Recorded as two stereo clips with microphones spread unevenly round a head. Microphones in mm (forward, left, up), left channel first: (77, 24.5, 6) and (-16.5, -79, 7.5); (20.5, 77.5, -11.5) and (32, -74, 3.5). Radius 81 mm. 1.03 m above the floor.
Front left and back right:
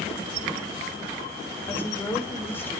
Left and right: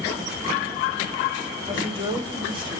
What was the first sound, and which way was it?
A woman speaking, 30° right.